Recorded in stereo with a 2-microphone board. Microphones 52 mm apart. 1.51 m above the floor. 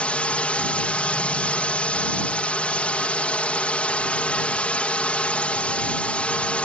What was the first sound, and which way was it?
A drone, 25° left (ahead or behind).